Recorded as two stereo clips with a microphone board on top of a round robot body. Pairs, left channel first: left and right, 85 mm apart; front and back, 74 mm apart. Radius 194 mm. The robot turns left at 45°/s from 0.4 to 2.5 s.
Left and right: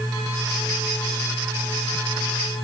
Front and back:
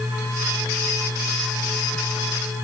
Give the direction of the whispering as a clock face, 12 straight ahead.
No whispering in this recording.